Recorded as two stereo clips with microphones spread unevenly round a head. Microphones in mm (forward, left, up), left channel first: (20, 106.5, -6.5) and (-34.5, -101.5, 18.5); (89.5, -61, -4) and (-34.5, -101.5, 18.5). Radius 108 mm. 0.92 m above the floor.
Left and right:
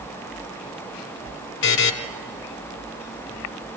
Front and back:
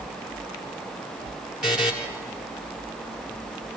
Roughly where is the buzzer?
Behind left.